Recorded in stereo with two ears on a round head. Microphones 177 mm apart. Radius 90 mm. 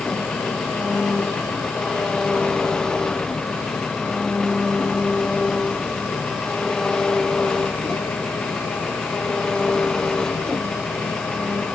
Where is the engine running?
5° left (ahead or behind).